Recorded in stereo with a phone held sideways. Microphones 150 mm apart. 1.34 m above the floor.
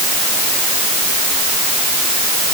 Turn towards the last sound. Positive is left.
No sound to turn to.